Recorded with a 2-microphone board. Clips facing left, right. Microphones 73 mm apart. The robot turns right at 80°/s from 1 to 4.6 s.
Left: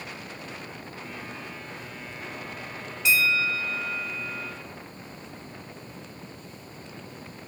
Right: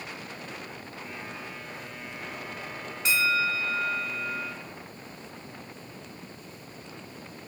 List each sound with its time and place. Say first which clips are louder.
3.0 s a bell: left 2 dB; 135° right, 0.5 m; by 4.5 s 15° right, 0.5 m